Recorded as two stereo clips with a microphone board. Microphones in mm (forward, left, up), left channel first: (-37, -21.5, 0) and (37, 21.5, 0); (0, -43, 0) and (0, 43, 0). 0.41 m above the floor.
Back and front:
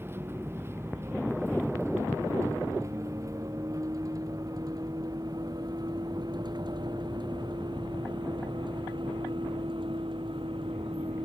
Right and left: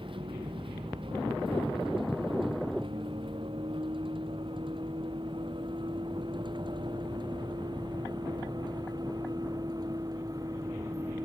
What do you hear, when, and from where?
0.0 s a vehicle: 95° left; by 11.2 s 40° left